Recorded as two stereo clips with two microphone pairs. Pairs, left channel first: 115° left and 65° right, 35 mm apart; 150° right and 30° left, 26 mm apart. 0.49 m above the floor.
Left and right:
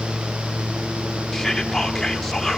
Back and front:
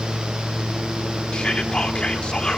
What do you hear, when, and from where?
1.3 s whispering: 170° right, 1.5 m